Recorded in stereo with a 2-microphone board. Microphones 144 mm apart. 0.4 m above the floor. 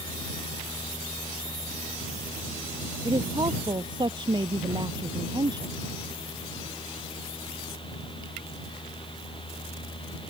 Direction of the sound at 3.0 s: 30° right (ahead or behind).